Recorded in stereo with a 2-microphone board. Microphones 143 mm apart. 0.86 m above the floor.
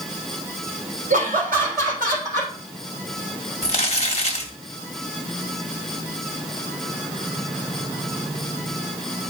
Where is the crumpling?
50° left (ahead or behind), 1.4 m.